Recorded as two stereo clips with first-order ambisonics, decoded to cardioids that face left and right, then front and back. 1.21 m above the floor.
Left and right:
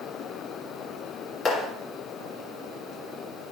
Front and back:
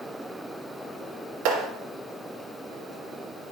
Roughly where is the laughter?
No laughter in this recording.